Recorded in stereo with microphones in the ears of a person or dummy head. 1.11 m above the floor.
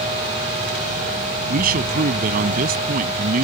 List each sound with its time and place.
1.5 s a man speaking: 45° right (ahead or behind)